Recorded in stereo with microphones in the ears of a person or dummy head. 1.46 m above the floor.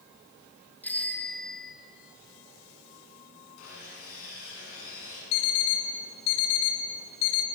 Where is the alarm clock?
60° left (ahead or behind), 2 m.